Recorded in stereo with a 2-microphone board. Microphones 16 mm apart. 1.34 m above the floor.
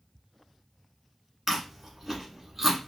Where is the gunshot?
No gunshot in this recording.